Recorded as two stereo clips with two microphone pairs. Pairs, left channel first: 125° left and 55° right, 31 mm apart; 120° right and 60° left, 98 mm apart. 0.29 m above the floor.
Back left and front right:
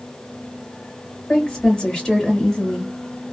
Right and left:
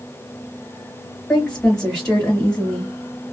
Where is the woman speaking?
160° left, 1.4 m.